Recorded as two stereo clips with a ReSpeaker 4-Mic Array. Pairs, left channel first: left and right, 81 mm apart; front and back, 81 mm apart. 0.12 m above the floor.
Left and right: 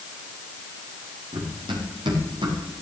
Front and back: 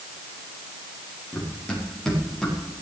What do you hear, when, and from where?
1.3 s running footsteps: 80° right, 6 m; by 2.6 s 85° right, 6 m